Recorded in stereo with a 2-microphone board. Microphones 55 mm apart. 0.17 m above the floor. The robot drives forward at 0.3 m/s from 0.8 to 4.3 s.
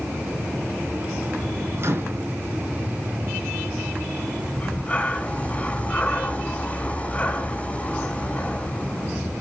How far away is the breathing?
About 1.6 m.